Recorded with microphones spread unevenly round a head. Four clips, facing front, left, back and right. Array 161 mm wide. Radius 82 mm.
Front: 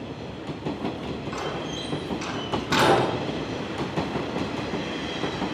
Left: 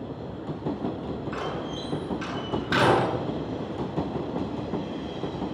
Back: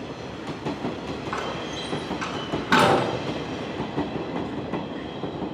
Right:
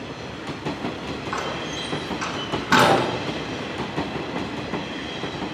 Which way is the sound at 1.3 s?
125° right.